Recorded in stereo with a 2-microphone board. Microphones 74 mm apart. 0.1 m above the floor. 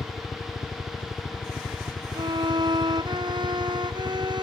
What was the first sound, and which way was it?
A helicopter, 50° left (ahead or behind).